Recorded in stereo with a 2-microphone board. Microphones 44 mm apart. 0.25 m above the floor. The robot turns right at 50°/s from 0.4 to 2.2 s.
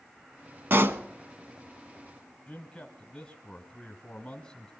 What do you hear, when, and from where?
0.7 s a pop: 55° right (ahead or behind), 0.8 m; by 1.0 s 65° right (ahead or behind), 0.8 m
2.5 s a man speaking: 25° left (ahead or behind), 1.3 m